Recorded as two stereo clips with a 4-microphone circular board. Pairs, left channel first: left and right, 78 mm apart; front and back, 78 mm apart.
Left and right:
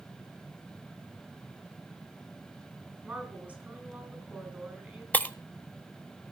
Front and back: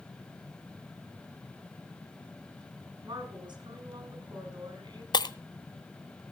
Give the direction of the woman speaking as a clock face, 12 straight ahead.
5 o'clock.